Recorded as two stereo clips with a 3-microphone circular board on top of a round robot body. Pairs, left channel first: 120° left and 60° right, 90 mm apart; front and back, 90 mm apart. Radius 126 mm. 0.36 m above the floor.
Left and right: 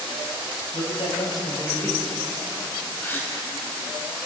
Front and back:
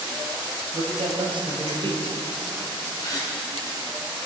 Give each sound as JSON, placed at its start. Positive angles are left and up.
{"t": 0.7, "sound": "a man speaking", "azimuth_deg": 140, "distance_m": 2.5}
{"t": 3.0, "sound": "a gasp", "azimuth_deg": 50, "distance_m": 1.4}